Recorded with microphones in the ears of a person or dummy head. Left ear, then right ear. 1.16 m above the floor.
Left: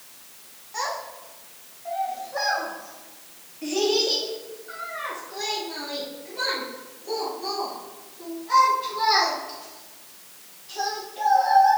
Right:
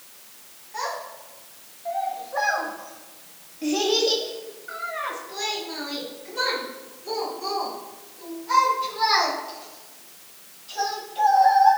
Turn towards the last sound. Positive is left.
turn(degrees=-65)  # may be behind; listen again after turning